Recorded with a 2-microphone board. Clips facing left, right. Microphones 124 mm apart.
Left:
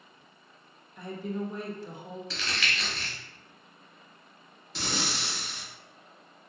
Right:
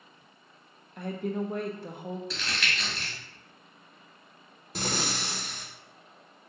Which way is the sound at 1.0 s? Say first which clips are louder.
Right 3 dB; 55° right (ahead or behind).